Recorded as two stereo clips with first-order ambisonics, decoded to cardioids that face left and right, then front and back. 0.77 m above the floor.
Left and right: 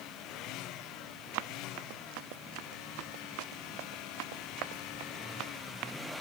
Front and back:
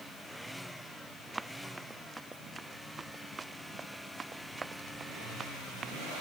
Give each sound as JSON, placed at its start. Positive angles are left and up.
{"t": 1.3, "sound": "running footsteps", "azimuth_deg": -95}